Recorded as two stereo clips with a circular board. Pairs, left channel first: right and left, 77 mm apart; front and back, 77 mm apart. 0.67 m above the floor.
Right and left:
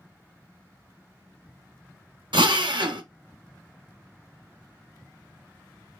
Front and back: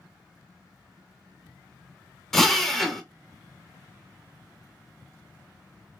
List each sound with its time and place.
2.3 s a drill: 85° left, 0.8 m